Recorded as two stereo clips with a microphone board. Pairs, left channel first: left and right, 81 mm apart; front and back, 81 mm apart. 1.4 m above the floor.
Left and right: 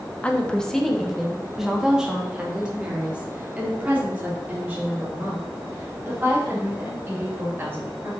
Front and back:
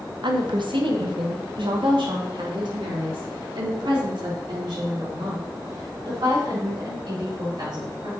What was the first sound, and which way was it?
A woman speaking, 165° left.